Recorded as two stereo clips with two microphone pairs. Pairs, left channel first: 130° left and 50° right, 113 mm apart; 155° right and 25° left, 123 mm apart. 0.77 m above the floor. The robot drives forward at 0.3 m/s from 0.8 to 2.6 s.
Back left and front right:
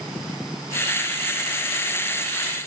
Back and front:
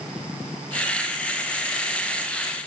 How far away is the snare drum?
No snare drum in this recording.